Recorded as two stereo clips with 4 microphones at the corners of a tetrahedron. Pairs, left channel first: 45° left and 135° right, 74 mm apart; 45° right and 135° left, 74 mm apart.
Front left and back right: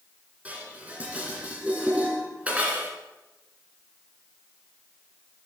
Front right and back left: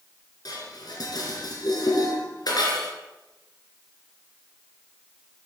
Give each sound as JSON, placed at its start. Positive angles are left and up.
{"t": 0.5, "sound": "dishes clattering", "azimuth_deg": -65, "distance_m": 2.5}